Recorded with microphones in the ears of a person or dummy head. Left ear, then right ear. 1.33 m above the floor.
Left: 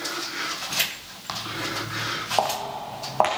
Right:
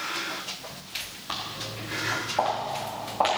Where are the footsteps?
60° left (ahead or behind), 2.5 m.